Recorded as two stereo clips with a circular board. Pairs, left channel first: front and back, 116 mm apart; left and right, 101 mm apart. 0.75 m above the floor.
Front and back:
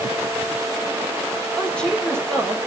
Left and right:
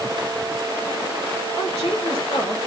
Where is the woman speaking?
80° left, 2.5 m.